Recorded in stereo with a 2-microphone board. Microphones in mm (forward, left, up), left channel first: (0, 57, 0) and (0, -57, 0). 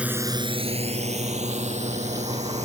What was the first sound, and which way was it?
A drone, 10° right (ahead or behind).